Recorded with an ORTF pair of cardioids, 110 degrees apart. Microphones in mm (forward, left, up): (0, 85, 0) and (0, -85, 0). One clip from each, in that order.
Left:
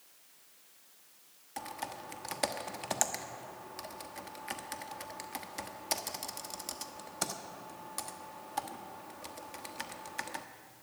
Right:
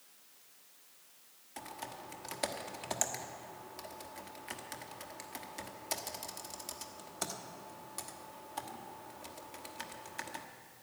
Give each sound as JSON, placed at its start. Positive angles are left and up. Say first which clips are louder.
{"t": 1.6, "sound": "typing on a keyboard", "louder": "left 4 dB", "azimuth_deg": 20, "distance_m": 1.1}